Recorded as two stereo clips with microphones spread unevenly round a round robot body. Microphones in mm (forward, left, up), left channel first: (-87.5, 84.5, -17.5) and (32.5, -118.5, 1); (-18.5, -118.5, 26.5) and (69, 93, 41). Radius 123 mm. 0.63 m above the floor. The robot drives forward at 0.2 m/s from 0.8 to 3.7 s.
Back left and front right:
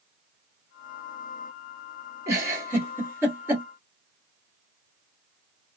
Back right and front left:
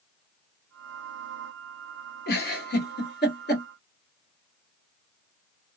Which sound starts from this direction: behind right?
A giggle, at 2.3 s.